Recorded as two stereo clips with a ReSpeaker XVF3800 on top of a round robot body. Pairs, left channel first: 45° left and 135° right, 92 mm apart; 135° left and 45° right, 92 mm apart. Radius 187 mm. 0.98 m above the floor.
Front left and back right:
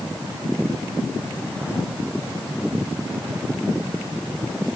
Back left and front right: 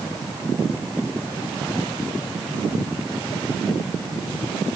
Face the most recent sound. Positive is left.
No sound to turn to.